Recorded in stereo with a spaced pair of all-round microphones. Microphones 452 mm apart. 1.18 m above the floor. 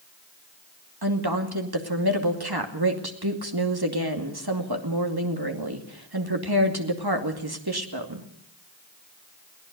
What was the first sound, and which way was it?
A woman speaking, 55° right (ahead or behind).